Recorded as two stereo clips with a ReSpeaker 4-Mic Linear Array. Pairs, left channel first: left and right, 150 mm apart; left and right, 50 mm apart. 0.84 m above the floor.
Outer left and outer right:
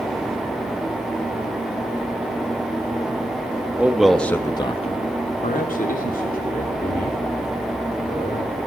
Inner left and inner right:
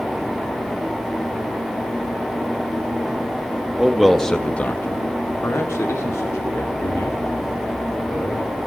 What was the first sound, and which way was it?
A man speaking, 10° right (ahead or behind).